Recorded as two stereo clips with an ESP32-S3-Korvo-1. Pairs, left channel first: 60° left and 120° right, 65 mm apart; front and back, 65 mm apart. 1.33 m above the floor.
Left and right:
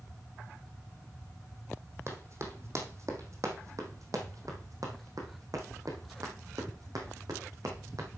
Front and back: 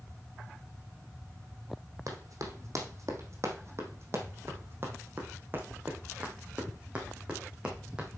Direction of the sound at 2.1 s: 160° right.